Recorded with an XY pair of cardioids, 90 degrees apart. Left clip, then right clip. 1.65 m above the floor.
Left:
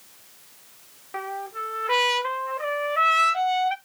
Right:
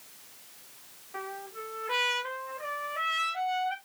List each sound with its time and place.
1.1 s a trumpet: 65° left, 0.7 m